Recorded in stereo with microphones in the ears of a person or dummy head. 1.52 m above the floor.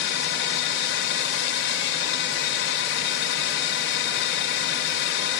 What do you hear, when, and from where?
0.0 s a drone: 60° left (ahead or behind)